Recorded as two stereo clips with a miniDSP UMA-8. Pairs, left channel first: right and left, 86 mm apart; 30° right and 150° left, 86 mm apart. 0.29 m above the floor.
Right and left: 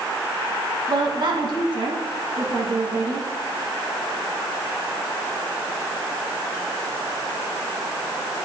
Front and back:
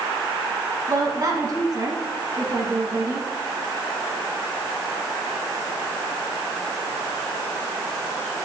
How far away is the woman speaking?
About 2.5 m.